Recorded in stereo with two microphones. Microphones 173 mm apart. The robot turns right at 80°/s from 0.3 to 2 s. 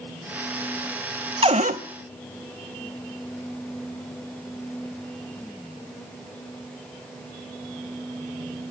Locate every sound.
1.4 s a cupboard door: 145° right, 0.5 m; by 1.8 s 110° right, 0.5 m